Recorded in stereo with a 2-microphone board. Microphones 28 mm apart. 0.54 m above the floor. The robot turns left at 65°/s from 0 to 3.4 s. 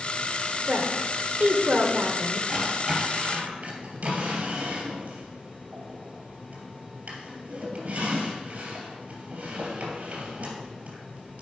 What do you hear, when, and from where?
0.7 s a woman speaking: 55° right, 1.6 m; by 2.4 s 165° right, 1.6 m
2.5 s a drawer: 10° left (ahead or behind), 3 m; by 11.4 s 50° right (ahead or behind), 3 m